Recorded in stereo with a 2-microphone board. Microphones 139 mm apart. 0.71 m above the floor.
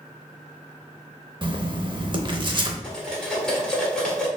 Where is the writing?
35° right (ahead or behind), 0.6 m.